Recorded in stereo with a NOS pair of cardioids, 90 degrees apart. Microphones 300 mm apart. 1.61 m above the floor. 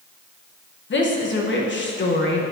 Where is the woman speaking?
40° left, 1.3 m.